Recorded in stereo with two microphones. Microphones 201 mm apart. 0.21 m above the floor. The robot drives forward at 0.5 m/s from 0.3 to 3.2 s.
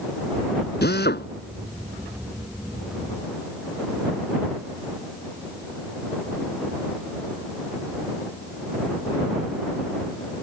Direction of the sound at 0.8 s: 60° left (ahead or behind).